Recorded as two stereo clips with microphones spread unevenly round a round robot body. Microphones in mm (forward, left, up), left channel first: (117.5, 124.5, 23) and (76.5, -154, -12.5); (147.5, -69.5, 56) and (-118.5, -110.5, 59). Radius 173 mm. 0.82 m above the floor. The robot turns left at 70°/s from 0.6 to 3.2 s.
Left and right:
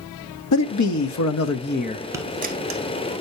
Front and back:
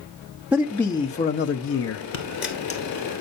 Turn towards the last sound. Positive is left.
turn(degrees=-90)